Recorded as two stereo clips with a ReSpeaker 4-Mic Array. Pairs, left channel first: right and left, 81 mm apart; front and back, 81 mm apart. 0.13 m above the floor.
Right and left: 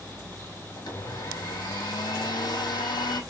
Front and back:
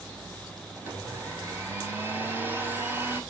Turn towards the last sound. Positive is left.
turn(degrees=-120)